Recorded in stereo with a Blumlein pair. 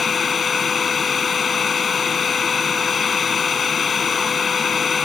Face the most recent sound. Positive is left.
turn(degrees=20)